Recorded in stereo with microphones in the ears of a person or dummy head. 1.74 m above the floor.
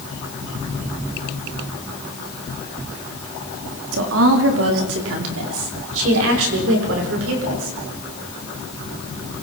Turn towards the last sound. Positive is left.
turn(degrees=-80)